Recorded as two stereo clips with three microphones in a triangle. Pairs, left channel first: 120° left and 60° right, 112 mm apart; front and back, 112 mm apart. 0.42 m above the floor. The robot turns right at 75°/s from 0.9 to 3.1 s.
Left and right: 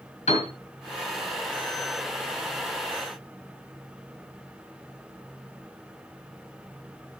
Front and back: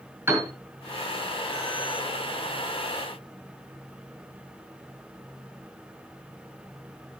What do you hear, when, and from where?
0.3 s a piano: 110° left, 5 m